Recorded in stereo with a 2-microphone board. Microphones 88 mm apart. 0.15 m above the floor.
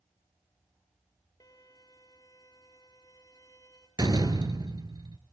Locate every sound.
1.4 s a violin: 45° left (ahead or behind), 3 m
4.0 s a door slam: 50° right (ahead or behind), 2.0 m